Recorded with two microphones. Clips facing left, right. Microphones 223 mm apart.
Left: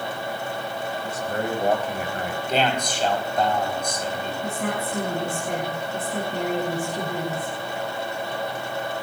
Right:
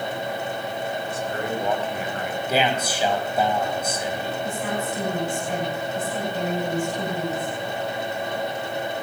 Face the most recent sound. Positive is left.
turn(degrees=60)  # may be behind; listen again after turning